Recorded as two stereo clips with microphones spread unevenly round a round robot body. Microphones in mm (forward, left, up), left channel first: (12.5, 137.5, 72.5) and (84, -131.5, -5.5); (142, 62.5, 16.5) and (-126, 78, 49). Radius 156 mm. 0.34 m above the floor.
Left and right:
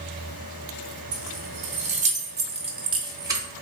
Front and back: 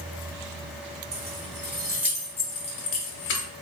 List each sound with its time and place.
1.1 s keys jangling: 125° right, 1.0 m; by 3.5 s 10° right, 0.9 m